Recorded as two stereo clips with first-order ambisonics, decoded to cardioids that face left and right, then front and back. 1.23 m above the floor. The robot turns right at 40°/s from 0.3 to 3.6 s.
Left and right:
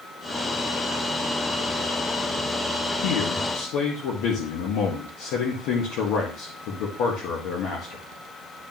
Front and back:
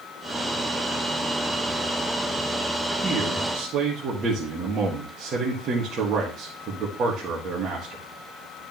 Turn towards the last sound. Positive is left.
turn(degrees=120)